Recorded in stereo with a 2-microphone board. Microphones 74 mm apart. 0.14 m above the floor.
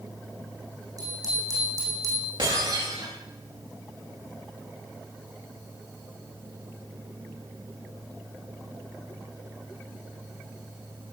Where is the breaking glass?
70° right (ahead or behind), 8.5 m.